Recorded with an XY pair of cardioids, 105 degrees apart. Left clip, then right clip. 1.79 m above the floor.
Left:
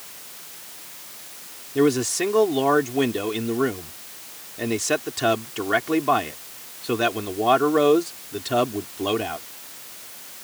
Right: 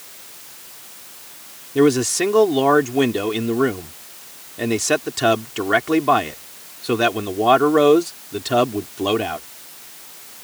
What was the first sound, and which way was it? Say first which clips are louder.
A man speaking: right 4 dB; 25° right.